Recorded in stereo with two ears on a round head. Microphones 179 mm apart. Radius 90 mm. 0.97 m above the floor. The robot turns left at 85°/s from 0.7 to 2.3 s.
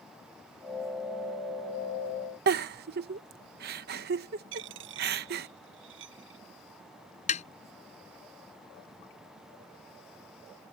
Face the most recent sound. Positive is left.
turn(degrees=40)  # may be behind; listen again after turning